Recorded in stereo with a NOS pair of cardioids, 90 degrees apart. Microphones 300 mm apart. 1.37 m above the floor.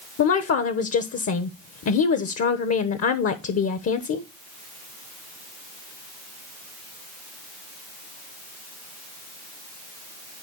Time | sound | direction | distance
0.2 | a woman speaking | 55° left | 1.2 m